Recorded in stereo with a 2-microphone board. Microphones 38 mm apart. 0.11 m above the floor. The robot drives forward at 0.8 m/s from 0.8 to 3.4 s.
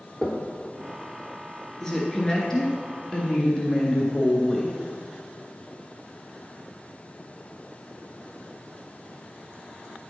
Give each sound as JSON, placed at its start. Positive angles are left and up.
{"t": 0.2, "sound": "knocking", "side_deg": 15, "distance_m": 1.2}
{"t": 1.8, "sound": "a woman speaking", "side_deg": 15, "distance_m": 2.0}